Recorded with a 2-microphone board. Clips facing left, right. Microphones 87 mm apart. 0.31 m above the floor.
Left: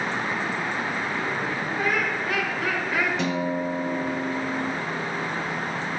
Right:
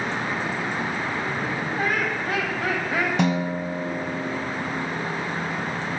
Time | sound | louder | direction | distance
1.8 | laughter | even | 45° right (ahead or behind) | 2 m
3.2 | a guitar | right 2 dB | 65° right (ahead or behind) | 0.8 m